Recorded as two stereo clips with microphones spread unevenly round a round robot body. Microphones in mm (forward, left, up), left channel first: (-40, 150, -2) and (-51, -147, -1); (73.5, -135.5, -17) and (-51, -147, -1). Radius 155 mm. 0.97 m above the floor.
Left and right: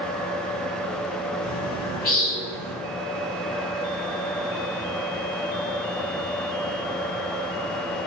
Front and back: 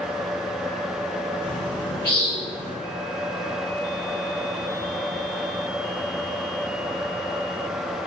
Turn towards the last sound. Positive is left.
turn(degrees=35)